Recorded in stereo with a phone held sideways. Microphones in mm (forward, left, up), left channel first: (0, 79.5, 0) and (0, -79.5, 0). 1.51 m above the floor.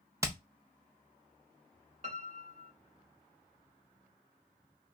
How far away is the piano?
About 0.7 m.